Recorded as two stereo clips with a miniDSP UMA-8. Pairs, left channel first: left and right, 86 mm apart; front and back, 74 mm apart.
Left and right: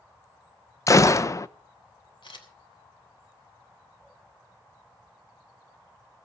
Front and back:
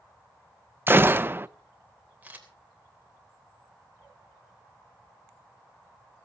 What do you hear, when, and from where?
0.9 s a gunshot: 130° left, 0.6 m
2.2 s a camera shutter: 110° left, 3 m